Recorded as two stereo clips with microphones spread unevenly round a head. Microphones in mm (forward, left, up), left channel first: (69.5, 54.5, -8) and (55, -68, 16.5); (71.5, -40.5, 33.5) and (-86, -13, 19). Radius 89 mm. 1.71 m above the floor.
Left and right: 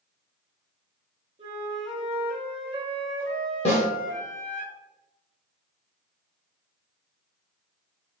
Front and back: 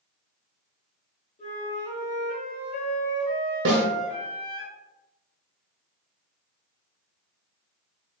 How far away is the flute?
About 1.0 m.